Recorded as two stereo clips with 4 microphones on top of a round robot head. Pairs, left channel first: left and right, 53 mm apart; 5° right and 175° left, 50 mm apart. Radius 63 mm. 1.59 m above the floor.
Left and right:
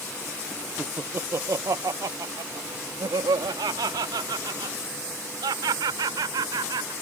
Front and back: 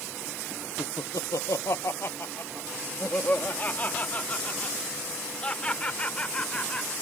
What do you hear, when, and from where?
0.8 s laughter: 15° right; by 6.9 s 85° right